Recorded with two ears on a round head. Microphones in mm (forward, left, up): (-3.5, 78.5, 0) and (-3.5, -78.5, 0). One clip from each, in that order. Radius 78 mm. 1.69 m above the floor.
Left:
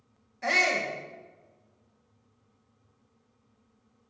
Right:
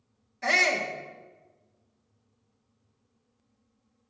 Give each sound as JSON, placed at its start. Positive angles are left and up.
{"t": 0.4, "sound": "a shout", "side_deg": -15, "distance_m": 1.8}